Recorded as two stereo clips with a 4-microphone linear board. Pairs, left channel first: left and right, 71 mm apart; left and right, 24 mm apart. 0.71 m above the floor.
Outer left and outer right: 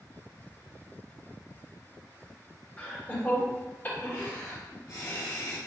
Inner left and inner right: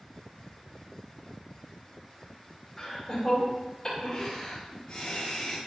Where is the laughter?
15° left (ahead or behind), 2.0 m; by 5.6 s 60° left (ahead or behind), 1.2 m.